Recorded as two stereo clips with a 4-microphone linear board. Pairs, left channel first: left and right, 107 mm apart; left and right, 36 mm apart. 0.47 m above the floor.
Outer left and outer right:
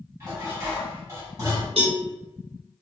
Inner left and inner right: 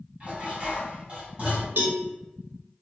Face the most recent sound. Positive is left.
turn(degrees=-65)  # may be behind; listen again after turning